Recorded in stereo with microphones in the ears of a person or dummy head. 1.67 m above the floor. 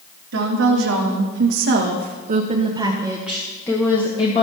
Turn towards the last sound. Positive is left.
turn(degrees=35)  # may be behind; listen again after turning